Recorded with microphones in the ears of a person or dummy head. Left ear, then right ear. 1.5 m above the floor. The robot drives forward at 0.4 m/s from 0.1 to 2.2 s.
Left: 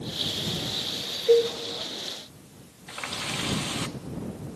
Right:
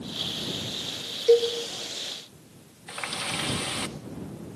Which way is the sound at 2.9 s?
20° right (ahead or behind).